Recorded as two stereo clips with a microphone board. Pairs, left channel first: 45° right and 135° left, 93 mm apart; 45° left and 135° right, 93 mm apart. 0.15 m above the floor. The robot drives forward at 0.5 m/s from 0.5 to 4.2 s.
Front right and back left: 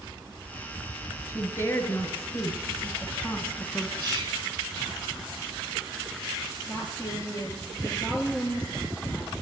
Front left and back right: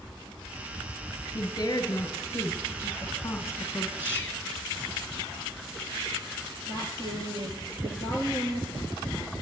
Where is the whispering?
165° left, 2.5 m.